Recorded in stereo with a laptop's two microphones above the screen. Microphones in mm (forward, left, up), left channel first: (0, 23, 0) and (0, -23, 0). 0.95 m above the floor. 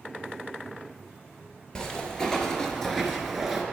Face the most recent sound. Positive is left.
turn(degrees=-5)  # may be behind; listen again after turning